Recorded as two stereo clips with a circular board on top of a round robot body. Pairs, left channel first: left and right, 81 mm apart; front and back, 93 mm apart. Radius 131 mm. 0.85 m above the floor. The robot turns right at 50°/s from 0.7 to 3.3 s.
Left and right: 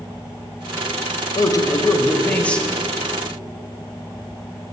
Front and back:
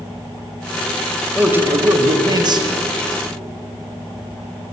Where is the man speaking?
105° left, 0.7 m; by 2.7 s 175° left, 0.7 m.